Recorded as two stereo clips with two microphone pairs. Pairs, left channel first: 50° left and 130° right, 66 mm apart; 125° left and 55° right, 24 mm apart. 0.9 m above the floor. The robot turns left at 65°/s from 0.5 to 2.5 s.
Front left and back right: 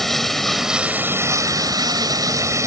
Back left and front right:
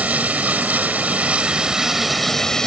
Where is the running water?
35° right; by 2.7 s 165° right.